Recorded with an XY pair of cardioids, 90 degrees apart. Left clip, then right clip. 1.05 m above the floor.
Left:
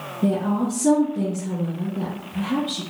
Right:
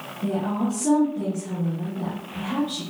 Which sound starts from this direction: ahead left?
A woman speaking, at 0.2 s.